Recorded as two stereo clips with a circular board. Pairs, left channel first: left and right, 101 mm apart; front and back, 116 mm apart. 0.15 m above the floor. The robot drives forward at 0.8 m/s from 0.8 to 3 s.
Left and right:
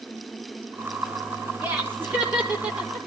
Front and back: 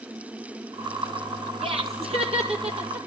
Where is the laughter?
160° right, 4.5 m.